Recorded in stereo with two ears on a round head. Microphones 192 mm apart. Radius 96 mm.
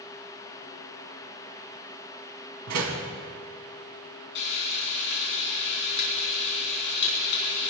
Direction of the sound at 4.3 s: 55° left (ahead or behind).